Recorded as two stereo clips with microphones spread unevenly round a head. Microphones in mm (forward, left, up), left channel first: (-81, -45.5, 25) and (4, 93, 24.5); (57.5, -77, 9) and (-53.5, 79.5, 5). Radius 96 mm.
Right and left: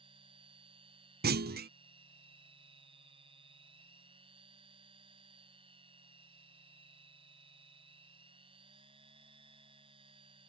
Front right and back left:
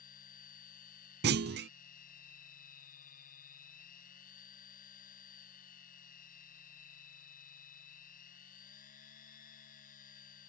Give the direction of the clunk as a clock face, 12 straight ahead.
9 o'clock.